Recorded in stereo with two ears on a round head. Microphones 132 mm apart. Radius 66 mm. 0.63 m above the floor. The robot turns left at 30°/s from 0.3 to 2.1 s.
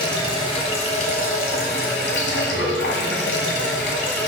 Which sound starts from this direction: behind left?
Running water, at 0.0 s.